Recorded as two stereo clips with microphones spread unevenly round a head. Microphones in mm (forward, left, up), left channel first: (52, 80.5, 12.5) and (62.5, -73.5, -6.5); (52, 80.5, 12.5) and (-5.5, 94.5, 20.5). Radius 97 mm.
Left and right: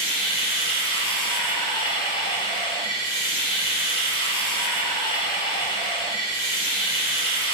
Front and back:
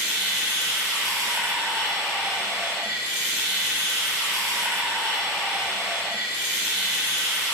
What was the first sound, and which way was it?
Running water, 90° left.